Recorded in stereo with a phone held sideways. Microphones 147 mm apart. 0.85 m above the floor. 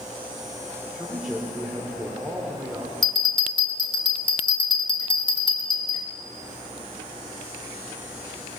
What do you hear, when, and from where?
0.9 s a man speaking: 5° right (ahead or behind), 3 m
3.0 s a bell: 30° left (ahead or behind), 1.8 m